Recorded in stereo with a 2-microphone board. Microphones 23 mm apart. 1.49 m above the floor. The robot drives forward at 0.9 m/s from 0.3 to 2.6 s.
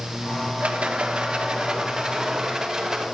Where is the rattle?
80° right, 1.0 m; by 3.0 s 25° right (ahead or behind), 2 m.